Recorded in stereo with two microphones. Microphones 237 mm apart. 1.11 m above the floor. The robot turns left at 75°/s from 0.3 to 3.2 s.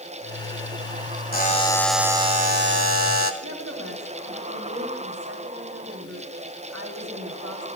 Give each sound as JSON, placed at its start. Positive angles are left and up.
{"t": 1.3, "sound": "a buzzer", "azimuth_deg": 45, "distance_m": 1.5}
{"t": 3.4, "sound": "a woman speaking", "side_deg": -85, "distance_m": 3.0}